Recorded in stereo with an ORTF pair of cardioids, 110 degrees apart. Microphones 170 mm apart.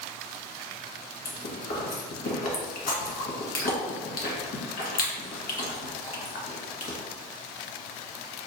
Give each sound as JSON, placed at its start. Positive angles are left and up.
{"t": 1.2, "sound": "chewing", "azimuth_deg": 70, "distance_m": 1.4}